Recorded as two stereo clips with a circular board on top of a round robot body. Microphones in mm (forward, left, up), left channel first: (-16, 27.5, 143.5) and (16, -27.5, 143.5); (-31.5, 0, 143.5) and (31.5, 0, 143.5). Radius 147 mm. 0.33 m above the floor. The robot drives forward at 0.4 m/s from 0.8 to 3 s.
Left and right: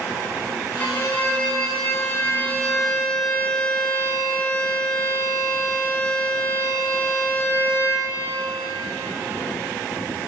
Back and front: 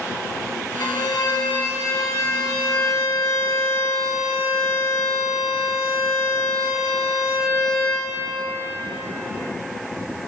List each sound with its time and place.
0.8 s a violin: straight behind, 1.1 m